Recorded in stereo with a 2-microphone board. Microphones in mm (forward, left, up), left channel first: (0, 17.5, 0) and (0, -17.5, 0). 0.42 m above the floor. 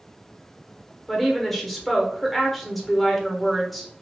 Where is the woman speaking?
Centre (ahead or behind), 0.9 m.